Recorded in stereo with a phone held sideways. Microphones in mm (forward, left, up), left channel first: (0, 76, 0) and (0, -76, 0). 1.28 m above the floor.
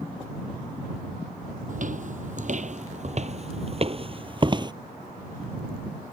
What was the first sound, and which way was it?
Footsteps, 60° right (ahead or behind).